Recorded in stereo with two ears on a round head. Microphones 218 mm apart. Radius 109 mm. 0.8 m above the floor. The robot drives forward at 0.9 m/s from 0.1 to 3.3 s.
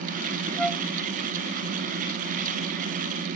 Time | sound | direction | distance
0.6 | a flute | 5° left (ahead or behind) | ?